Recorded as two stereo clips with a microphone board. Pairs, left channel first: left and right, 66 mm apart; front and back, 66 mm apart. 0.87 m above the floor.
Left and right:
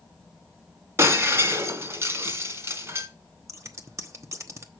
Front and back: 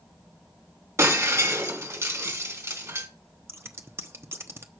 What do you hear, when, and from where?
1.0 s breaking glass: 135° right, 2 m
3.5 s scissors: 130° right, 1.0 m